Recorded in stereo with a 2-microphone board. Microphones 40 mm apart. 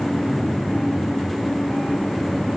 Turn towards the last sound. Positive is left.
No sound to turn to.